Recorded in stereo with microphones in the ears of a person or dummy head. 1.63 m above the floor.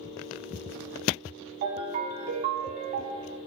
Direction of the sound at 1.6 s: 35° right (ahead or behind).